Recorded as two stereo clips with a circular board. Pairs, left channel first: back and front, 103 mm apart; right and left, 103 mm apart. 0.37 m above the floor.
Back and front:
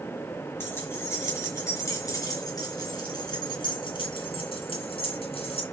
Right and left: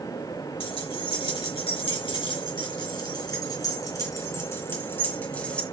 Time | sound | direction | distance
0.6 | keys jangling | 115° right | 4 m